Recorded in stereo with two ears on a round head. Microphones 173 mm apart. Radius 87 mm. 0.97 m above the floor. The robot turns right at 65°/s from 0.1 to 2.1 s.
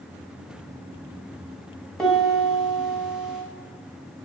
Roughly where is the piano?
Centre.